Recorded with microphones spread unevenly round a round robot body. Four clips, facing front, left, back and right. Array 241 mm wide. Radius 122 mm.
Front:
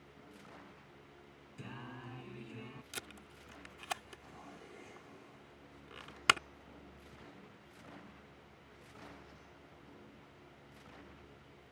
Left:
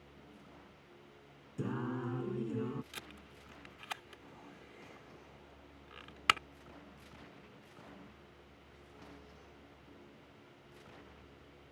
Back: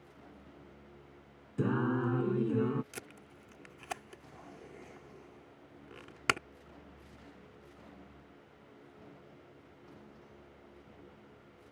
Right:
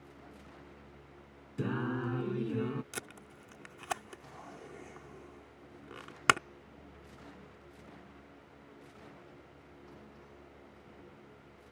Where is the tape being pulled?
120° right.